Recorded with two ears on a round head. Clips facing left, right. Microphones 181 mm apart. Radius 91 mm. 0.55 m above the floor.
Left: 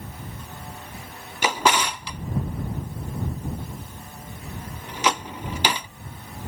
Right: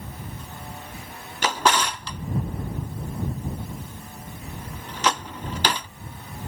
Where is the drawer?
10° left (ahead or behind).